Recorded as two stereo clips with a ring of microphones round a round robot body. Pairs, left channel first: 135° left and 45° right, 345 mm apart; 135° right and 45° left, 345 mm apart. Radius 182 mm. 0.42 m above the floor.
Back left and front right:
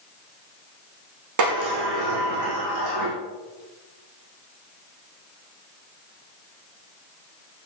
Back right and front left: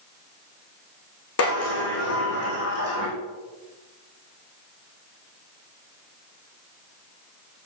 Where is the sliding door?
85° right, 5.5 m.